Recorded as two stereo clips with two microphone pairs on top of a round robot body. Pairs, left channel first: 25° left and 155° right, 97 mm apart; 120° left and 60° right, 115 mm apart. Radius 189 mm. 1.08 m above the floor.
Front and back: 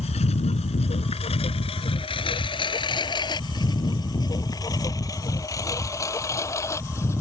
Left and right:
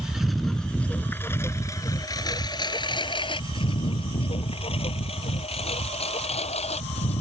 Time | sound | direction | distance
0.0 | a lawn mower | 20° left | ?